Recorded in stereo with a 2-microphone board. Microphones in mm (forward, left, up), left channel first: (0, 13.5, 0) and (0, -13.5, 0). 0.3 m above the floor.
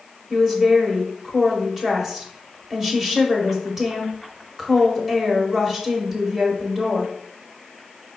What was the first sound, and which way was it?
A woman speaking, 10° right (ahead or behind).